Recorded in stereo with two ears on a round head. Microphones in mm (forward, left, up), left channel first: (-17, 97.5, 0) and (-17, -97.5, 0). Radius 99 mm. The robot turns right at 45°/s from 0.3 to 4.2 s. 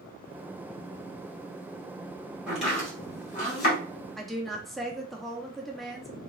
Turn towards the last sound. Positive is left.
turn(degrees=0)  # may be behind; listen again after turning